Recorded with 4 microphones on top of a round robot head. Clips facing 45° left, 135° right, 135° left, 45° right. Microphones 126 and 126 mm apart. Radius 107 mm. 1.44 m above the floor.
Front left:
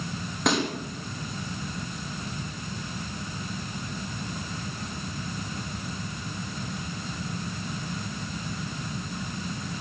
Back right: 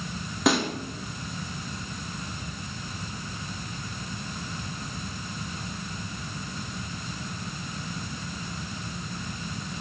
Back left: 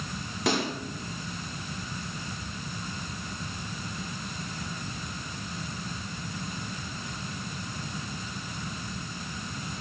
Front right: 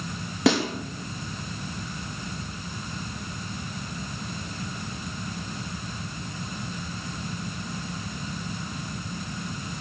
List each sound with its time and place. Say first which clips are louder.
0.5 s a snare drum: back right 2 dB, front right 6 dB; 50° right, 3.5 m